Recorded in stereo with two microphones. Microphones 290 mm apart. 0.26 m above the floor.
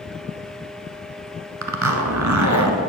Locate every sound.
1.6 s a zipper: 75° right (ahead or behind), 1.1 m